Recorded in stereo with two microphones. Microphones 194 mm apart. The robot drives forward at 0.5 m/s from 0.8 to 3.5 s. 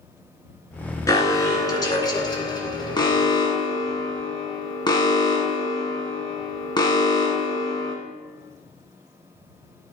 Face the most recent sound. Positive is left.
turn(degrees=20)  # may be behind; listen again after turning